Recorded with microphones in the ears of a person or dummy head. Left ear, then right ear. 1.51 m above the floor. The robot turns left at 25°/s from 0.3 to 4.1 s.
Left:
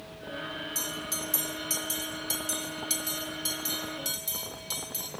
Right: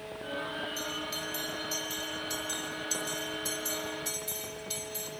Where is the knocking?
No knocking in this recording.